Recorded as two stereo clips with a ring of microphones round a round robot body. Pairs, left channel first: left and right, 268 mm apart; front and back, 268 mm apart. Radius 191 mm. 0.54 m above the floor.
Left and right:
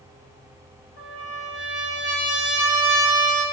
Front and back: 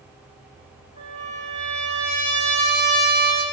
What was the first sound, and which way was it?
A trumpet, 165° right.